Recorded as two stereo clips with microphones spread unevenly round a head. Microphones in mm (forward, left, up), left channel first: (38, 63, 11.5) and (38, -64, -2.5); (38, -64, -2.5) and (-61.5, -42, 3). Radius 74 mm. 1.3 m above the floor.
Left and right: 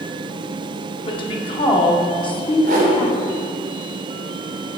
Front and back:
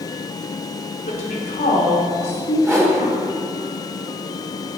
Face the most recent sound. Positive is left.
turn(degrees=-130)